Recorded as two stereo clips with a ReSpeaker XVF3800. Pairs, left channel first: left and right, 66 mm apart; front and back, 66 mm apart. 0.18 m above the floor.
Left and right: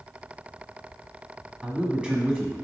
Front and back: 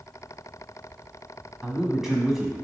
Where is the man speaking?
110° right, 1.3 m.